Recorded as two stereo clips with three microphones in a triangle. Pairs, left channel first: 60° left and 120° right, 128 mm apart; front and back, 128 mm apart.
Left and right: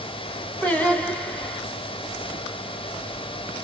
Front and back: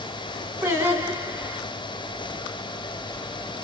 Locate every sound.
0.6 s singing: 130° left, 1.7 m